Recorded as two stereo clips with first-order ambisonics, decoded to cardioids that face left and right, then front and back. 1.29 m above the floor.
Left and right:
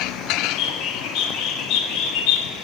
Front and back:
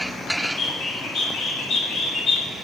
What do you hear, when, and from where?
0.4 s a bird: 55° left, 2 m